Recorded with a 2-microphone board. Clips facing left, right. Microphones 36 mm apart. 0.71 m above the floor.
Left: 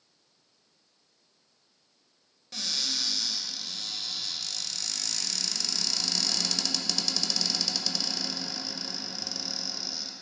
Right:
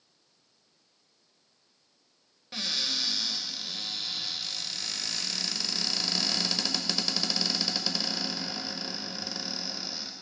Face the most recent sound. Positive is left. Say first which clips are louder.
# right 1 dB
turn(degrees=-20)  # may be behind; listen again after turning